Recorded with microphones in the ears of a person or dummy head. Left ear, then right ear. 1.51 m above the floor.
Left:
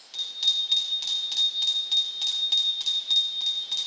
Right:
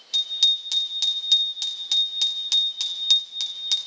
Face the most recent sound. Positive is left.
turn(degrees=-70)  # may be behind; listen again after turning